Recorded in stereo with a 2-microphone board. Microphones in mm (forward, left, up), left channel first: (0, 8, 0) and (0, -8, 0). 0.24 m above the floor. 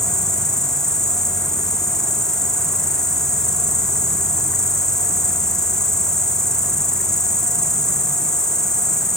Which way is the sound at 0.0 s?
30° left (ahead or behind).